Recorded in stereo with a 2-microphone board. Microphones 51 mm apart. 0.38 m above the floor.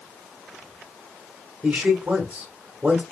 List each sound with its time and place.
1.6 s a man speaking: 20° right (ahead or behind), 1.3 m